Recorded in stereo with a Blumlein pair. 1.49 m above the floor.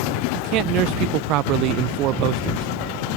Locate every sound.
0.3 s a man speaking: 40° right